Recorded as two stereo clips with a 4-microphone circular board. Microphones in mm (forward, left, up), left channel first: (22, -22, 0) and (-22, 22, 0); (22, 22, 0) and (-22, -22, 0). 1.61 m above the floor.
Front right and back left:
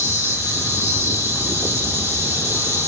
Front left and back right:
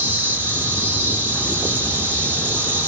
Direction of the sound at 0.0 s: 175° left.